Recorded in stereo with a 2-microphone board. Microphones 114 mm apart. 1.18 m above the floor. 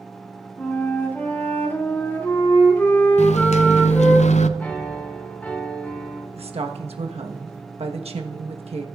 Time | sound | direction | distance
0.6 | a flute | 20° left (ahead or behind) | 2.5 m
3.2 | a microwave | 85° left | 0.6 m
4.6 | a piano | 15° left (ahead or behind) | 2.5 m
6.4 | a woman speaking | 60° right (ahead or behind) | 1.1 m